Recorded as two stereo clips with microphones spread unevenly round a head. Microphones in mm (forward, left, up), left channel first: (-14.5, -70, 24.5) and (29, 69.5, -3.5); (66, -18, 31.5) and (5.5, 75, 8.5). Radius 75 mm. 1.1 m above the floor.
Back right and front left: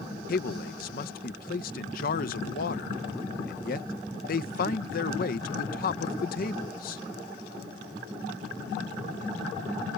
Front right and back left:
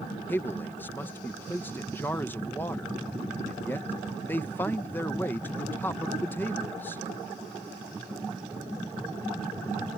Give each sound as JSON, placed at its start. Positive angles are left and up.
{"t": 0.3, "sound": "a man speaking", "azimuth_deg": -135}